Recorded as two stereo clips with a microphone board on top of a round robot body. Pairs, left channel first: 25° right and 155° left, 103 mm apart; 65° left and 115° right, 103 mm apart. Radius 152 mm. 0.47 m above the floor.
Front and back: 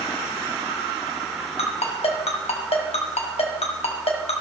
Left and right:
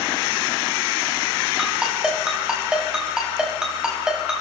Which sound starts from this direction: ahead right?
A ringtone, at 1.6 s.